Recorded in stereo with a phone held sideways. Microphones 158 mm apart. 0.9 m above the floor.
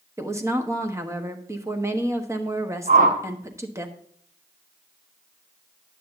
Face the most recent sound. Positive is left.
turn(degrees=-55)  # may be behind; listen again after turning